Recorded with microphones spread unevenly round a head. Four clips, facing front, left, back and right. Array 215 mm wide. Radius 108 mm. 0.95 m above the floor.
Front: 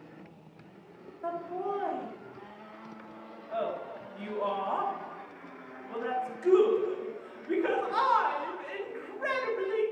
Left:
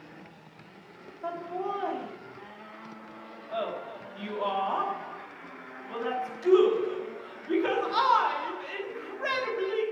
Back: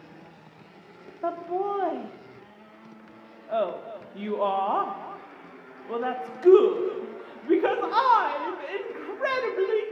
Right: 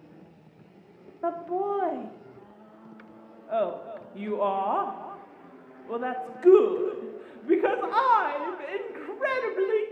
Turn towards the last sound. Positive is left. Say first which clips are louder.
# right 5 dB, back 6 dB
turn(degrees=-140)